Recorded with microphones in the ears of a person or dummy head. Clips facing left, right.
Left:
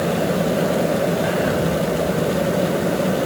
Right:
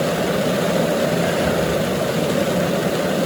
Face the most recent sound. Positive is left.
turn(degrees=-30)  # may be behind; listen again after turning